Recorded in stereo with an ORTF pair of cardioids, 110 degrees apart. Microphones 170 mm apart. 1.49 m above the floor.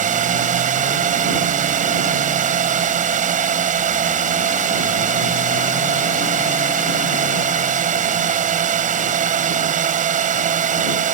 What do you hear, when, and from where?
0.0 s a drone: 50° right